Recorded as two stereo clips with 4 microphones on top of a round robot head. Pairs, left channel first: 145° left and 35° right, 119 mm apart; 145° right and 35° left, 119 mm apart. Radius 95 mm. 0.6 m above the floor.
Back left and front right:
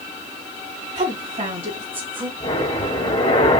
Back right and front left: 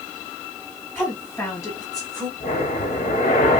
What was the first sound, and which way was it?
A woman speaking, 65° right.